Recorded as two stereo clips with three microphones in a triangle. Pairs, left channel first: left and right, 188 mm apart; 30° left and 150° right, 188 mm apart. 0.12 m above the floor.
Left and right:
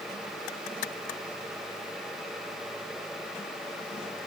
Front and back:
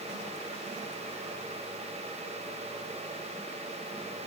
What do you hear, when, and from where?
Only background noise.